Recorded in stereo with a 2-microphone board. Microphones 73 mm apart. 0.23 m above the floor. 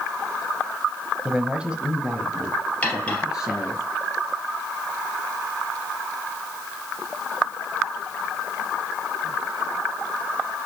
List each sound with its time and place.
1.2 s a man speaking: 15° right (ahead or behind), 1.0 m; by 3.8 s 10° right (ahead or behind), 4 m
2.8 s cutlery clinking: 20° left (ahead or behind), 3 m